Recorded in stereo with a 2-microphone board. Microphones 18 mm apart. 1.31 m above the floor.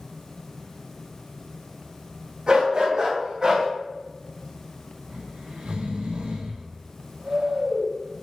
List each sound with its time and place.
2.5 s a dog barking: 45° right (ahead or behind), 3 m; by 3.7 s 35° right (ahead or behind), 3 m
5.1 s snoring: 80° right, 2 m